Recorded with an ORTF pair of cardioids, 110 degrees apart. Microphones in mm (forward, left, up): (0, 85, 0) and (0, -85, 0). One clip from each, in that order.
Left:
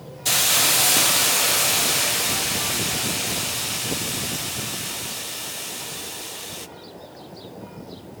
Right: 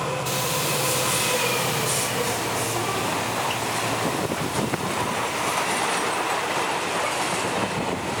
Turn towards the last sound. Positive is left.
turn(degrees=55)